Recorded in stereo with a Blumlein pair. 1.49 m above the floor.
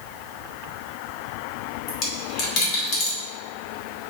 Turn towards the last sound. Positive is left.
turn(degrees=40)